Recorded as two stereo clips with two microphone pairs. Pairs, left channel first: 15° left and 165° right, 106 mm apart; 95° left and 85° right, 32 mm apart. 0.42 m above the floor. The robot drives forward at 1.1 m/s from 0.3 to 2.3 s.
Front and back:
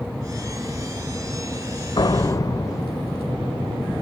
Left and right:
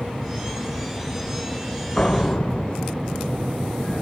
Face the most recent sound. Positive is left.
turn(degrees=55)